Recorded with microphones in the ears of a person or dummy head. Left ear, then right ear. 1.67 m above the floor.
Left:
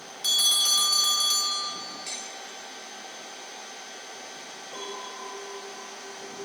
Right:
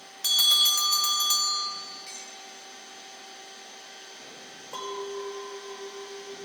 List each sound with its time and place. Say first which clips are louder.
0.2 s a bell: right 2 dB; 20° right (ahead or behind), 0.7 m
2.1 s dishes clattering: left 5 dB; 20° left (ahead or behind), 3 m
4.7 s a clink: right 4 dB; 50° right (ahead or behind), 4 m